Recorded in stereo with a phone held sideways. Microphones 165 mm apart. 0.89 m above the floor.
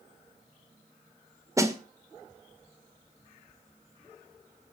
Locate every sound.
1.6 s a snare drum: 20° right (ahead or behind), 1.8 m